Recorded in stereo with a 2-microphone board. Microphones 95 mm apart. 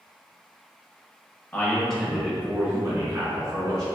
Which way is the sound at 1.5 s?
20° left (ahead or behind).